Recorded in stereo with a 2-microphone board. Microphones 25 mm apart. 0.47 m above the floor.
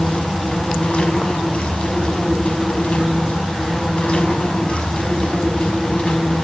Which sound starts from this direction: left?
An insect, at 0.0 s.